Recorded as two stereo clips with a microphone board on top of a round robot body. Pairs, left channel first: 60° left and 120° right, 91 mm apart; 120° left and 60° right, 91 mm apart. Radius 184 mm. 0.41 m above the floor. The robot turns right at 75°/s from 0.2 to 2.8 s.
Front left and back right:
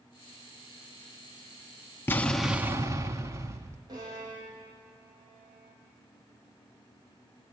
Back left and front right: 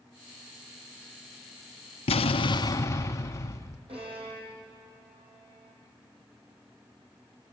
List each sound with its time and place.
2.1 s an explosion: 130° left, 0.7 m; by 3.8 s straight behind, 0.7 m
3.9 s a violin: 70° right, 6.5 m